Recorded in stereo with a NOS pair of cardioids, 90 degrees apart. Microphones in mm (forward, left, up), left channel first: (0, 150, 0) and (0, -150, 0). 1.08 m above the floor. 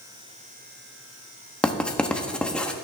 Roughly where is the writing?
Ahead.